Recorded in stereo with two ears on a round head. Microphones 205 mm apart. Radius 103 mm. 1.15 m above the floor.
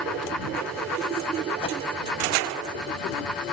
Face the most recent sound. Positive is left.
turn(degrees=25)  # may be behind; listen again after turning